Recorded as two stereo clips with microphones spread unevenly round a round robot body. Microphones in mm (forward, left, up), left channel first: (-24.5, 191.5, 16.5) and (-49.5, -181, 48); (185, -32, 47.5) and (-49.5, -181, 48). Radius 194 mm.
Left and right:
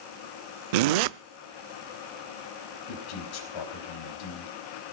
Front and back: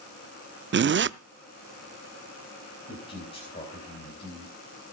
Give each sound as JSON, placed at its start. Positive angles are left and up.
{"t": 0.7, "sound": "a zipper", "azimuth_deg": -90, "distance_m": 0.5}
{"t": 2.9, "sound": "a man speaking", "azimuth_deg": 110, "distance_m": 4.0}